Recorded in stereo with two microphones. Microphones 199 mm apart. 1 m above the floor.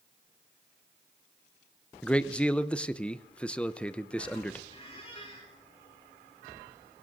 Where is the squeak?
30° left (ahead or behind), 7 m.